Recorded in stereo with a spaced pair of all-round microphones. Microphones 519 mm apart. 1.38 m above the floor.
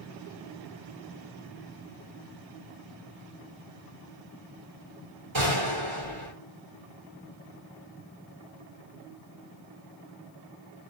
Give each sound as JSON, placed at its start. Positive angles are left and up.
{"t": 5.3, "sound": "a gunshot", "side_deg": -60, "distance_m": 2.5}